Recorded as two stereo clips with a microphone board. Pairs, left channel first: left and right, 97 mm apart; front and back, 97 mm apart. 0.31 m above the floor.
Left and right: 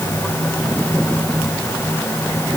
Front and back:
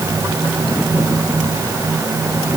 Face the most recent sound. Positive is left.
No sound to turn to.